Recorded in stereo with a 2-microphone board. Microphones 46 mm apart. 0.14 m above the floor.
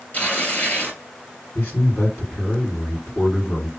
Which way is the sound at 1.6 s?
55° left (ahead or behind).